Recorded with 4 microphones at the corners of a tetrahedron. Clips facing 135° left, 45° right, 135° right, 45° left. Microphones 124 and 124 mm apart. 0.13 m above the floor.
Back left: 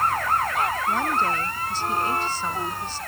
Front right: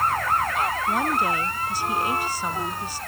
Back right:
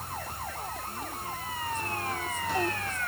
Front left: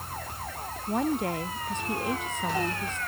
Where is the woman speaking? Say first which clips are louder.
Even, front left 11 dB; 35° left.